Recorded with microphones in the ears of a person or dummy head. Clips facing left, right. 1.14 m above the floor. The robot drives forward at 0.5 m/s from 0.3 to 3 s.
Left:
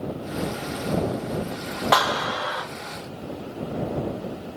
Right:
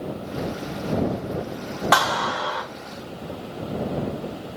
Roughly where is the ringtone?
No ringtone in this recording.